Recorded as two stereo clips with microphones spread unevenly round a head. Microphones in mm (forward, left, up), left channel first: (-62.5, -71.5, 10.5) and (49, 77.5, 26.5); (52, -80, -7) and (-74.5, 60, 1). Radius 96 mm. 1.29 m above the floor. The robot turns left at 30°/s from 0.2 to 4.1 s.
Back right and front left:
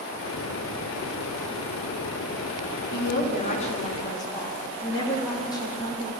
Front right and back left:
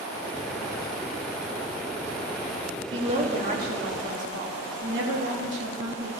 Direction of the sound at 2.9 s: 160° right.